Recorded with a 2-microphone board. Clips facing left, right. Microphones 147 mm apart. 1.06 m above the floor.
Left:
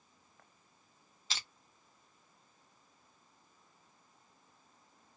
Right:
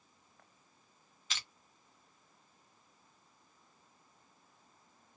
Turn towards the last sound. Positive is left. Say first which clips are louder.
# left 1 dB
turn(degrees=35)  # may be behind; listen again after turning